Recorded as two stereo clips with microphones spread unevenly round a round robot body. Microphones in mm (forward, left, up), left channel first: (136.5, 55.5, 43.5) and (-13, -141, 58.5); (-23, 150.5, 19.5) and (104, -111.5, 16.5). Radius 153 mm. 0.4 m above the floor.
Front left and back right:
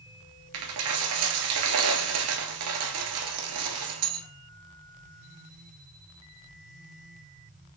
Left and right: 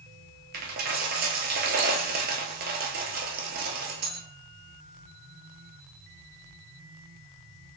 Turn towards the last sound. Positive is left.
turn(degrees=-125)